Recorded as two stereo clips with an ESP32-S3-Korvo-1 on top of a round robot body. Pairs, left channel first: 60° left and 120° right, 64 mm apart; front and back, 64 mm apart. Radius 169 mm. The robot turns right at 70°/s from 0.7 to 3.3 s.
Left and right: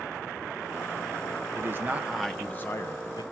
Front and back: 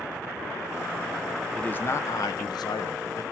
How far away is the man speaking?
About 1.0 m.